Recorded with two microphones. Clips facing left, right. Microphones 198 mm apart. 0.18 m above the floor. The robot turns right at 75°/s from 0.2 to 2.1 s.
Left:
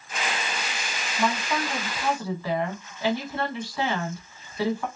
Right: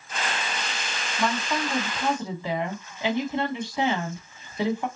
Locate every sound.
1.2 s a woman speaking: 10° left (ahead or behind), 1.2 m; by 4.9 s 20° right (ahead or behind), 1.2 m